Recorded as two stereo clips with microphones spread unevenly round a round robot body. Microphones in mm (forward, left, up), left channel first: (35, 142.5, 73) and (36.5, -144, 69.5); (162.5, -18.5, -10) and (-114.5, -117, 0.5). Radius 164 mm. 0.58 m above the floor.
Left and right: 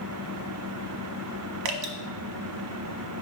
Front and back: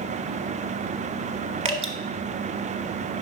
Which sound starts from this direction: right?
Dripping, at 1.6 s.